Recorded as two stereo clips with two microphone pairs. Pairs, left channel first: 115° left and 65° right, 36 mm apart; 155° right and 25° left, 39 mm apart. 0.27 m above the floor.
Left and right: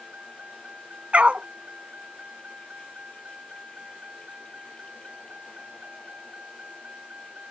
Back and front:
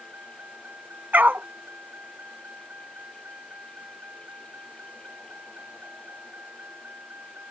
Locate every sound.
0.0 s a vehicle: 10° right
1.1 s a dog barking: 10° right